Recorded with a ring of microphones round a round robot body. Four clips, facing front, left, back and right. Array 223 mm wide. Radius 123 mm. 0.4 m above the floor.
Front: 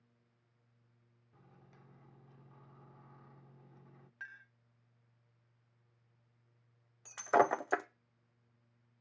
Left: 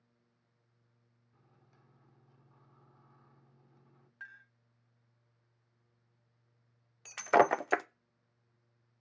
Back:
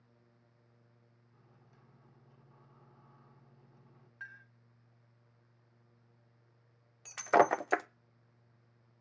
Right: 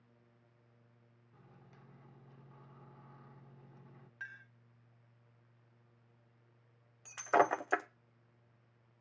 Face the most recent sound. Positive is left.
turn(degrees=115)